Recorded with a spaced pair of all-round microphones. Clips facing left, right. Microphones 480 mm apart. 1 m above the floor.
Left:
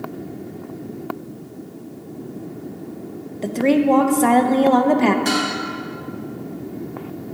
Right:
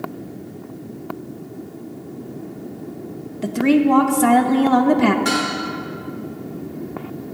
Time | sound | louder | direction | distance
3.4 | a woman speaking | right 1 dB | 35° right (ahead or behind) | 0.7 m
5.2 | dishes clattering | even | 30° right (ahead or behind) | 3.5 m